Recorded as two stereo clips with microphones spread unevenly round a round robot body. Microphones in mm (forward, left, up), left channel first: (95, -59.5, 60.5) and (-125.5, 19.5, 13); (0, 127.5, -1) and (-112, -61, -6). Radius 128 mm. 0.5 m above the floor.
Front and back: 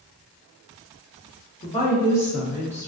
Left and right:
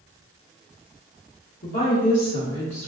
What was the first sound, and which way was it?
A woman speaking, 40° left.